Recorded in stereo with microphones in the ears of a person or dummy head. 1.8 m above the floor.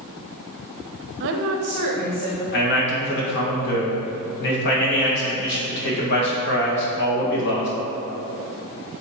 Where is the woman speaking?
60° right (ahead or behind), 0.7 m; by 2.4 s 40° right (ahead or behind), 1.6 m.